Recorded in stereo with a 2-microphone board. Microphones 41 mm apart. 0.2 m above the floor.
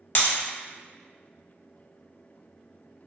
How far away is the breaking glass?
About 1.0 m.